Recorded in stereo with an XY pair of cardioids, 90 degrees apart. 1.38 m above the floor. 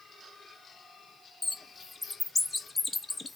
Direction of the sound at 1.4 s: 25° left.